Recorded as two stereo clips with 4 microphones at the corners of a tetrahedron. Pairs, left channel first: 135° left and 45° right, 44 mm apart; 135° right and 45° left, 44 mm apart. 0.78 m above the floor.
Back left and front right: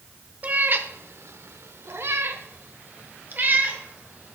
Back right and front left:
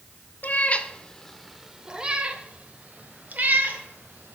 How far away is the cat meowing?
About 0.7 m.